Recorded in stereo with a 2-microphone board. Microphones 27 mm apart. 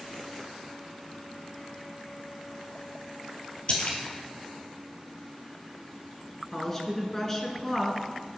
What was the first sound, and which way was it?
A splash, 50° left (ahead or behind).